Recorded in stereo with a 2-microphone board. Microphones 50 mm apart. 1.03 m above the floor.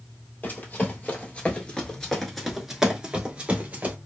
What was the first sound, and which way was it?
Running footsteps, 35° left (ahead or behind).